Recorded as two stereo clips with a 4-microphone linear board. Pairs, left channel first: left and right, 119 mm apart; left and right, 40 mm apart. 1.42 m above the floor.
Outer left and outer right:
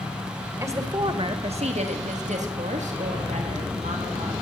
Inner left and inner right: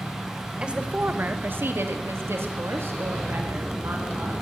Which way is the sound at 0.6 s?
20° right (ahead or behind).